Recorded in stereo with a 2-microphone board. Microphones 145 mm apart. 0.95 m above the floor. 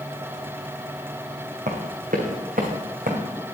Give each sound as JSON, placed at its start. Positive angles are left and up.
{"t": 1.7, "sound": "running footsteps", "side_deg": -65, "distance_m": 3.0}